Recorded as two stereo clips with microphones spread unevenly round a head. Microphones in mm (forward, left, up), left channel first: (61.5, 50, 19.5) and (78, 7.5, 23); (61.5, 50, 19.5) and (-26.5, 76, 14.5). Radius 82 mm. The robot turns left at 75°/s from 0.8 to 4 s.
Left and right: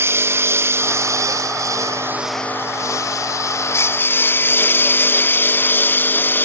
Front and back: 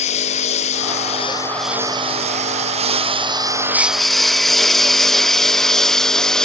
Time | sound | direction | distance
0.0 | a lawn mower | 40° right | ?